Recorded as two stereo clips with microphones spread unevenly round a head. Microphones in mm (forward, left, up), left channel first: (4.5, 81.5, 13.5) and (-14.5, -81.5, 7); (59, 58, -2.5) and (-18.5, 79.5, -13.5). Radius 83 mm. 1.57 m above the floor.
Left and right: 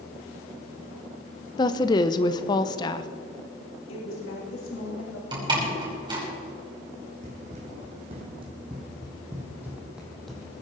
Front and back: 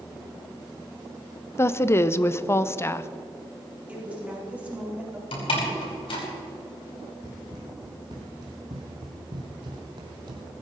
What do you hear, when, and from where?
1.6 s a woman speaking: 25° left, 0.7 m
3.9 s a woman speaking: 90° left, 4.5 m
5.3 s a door slam: 30° right, 4.5 m
7.2 s running footsteps: 140° right, 3.5 m; by 10.5 s 165° left, 2.5 m